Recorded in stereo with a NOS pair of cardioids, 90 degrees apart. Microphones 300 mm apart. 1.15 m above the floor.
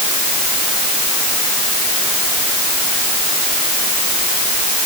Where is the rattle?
I don't hear a rattle.